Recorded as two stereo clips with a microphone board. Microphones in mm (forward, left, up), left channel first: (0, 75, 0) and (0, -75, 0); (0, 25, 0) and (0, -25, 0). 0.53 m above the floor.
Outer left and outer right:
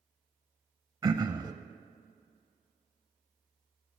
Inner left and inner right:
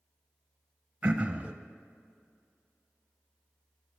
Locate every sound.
1.0 s throat clearing: 25° right (ahead or behind), 0.5 m